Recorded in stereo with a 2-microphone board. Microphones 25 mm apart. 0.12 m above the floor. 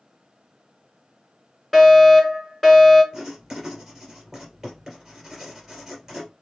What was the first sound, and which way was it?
A fire alarm, centre (ahead or behind).